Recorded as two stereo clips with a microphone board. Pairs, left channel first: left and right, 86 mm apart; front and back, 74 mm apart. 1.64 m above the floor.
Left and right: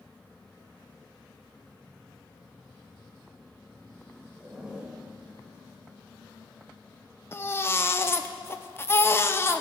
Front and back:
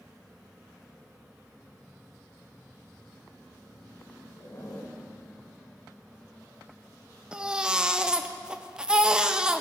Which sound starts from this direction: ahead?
A zipper, at 4.4 s.